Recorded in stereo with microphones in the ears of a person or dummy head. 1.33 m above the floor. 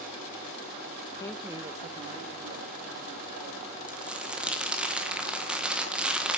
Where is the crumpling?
5° right (ahead or behind), 1.5 m.